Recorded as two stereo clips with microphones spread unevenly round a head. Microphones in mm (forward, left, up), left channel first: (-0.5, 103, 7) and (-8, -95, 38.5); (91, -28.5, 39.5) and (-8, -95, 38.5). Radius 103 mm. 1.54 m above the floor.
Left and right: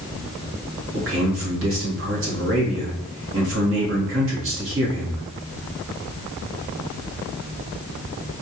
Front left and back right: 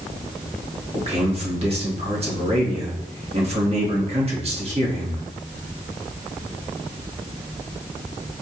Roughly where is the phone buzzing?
No phone buzzing in this recording.